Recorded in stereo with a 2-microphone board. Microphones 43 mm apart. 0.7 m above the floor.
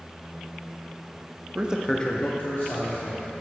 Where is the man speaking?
35° right (ahead or behind), 0.7 m; by 3.4 s 75° left (ahead or behind), 2.5 m.